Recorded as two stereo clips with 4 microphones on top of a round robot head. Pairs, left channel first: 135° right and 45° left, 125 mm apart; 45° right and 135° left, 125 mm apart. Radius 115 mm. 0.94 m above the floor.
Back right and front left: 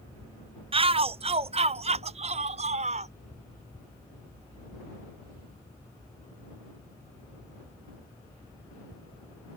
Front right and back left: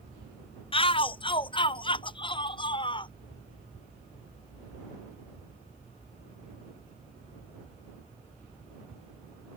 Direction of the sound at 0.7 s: Straight ahead.